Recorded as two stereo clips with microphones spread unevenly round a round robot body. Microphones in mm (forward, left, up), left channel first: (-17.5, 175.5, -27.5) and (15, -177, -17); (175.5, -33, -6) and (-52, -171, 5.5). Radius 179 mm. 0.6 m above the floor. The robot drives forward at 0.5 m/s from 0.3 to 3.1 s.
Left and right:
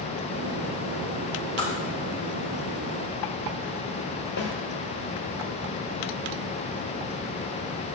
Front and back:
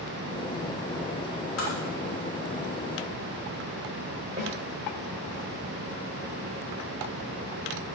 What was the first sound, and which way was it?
Tapping, 20° left.